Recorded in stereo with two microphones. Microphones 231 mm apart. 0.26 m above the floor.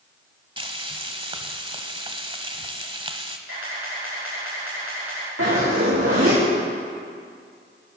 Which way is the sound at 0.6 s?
25° right (ahead or behind).